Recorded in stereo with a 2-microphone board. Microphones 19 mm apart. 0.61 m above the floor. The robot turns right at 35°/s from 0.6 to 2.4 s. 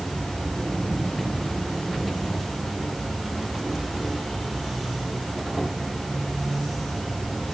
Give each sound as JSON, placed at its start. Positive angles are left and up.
{"t": 0.0, "sound": "an insect", "azimuth_deg": 80, "distance_m": 3.0}